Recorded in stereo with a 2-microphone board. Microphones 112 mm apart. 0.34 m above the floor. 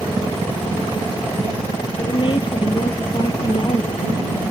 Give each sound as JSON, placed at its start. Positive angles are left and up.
{"t": 2.0, "sound": "a woman speaking", "side_deg": 45}